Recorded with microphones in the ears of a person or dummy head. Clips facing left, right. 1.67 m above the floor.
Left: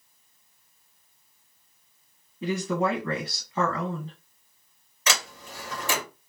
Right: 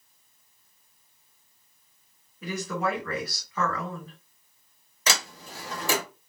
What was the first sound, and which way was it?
A woman speaking, 25° left (ahead or behind).